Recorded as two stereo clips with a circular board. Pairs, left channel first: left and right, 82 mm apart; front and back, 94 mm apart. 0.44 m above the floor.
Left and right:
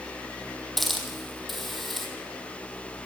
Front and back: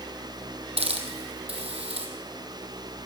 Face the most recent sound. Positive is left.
turn(degrees=180)